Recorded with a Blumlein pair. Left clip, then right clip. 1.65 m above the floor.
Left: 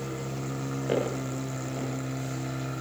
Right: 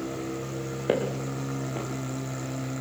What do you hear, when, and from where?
0.9 s footsteps: 65° right, 7.5 m